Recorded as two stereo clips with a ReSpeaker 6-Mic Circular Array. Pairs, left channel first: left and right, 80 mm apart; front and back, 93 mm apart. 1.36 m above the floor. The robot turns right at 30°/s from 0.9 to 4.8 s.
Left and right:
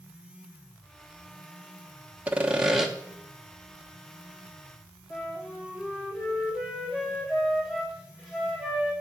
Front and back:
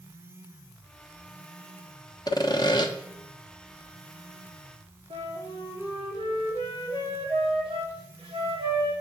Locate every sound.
2.3 s sawing: 20° right, 1.1 m; by 2.9 s 5° right, 1.1 m
5.1 s a flute: 175° left, 3.5 m